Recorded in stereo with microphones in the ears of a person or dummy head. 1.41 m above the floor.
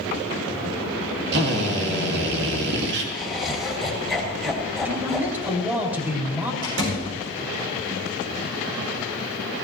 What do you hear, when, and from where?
1.3 s a drill: 60° right (ahead or behind), 2.5 m
3.1 s laughter: centre (ahead or behind), 3 m
4.8 s a man speaking: 10° right (ahead or behind), 3.5 m
6.6 s a door slam: 75° right (ahead or behind), 7 m